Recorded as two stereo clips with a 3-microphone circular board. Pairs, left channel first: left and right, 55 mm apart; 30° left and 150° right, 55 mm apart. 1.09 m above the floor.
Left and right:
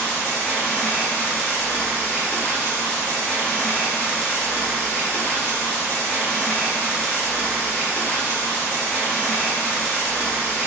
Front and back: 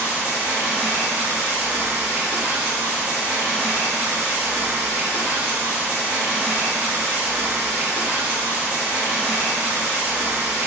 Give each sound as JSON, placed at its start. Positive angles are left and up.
{"t": 0.0, "sound": "running water", "azimuth_deg": 155, "distance_m": 1.0}